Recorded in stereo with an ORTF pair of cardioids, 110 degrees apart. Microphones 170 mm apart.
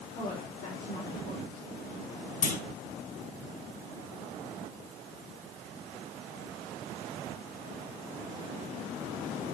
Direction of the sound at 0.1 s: 60° left.